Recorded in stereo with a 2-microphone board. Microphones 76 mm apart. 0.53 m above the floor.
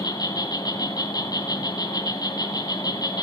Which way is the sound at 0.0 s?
60° left (ahead or behind).